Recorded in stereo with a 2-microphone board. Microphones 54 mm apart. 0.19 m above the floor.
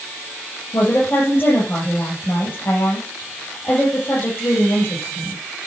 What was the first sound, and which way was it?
A woman speaking, 35° left (ahead or behind).